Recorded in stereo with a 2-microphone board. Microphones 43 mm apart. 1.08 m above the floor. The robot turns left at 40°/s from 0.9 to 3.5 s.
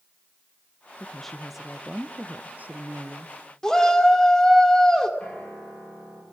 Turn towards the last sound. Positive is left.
turn(degrees=25)  # may be behind; listen again after turning